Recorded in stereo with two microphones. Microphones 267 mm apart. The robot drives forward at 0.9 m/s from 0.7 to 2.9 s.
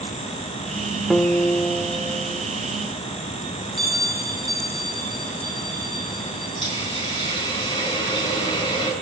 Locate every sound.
1.1 s a guitar: 5° left (ahead or behind), 1.2 m; by 2.5 s centre (ahead or behind), 2.5 m
3.8 s a bell: 15° right (ahead or behind), 4.5 m
6.6 s a hiss: 20° left (ahead or behind), 6.5 m